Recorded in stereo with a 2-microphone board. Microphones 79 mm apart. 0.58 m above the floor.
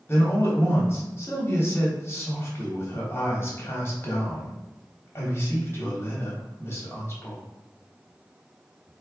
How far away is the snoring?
I don't hear snoring.